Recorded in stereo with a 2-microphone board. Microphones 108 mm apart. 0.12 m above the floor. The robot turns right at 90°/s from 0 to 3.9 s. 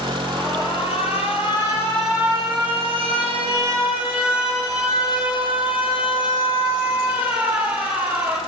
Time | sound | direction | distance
0.3 | an alarm | 20° left | 3.5 m